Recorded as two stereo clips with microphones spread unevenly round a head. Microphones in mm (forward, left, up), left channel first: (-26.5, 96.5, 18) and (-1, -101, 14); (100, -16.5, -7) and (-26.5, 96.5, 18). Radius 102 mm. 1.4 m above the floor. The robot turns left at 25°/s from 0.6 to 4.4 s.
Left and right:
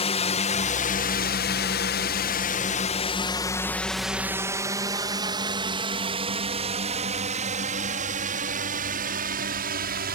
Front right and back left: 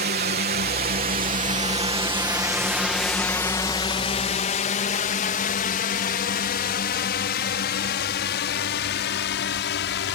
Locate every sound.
0.0 s a drone: 150° left; by 10.2 s 35° right